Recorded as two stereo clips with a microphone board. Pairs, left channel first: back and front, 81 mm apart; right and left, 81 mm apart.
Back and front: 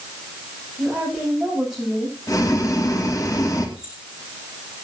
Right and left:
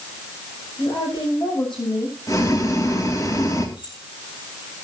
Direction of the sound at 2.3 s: 135° right.